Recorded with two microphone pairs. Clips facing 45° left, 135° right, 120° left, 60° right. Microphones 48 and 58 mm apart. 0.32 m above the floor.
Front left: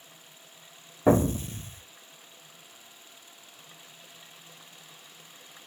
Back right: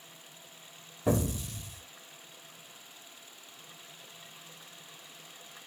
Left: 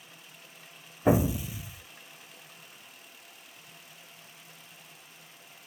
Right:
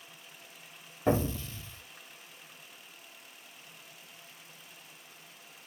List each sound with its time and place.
1.1 s an explosion: 45° left, 0.6 m